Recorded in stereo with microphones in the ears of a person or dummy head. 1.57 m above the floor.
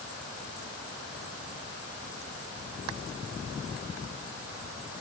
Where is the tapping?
No tapping in this recording.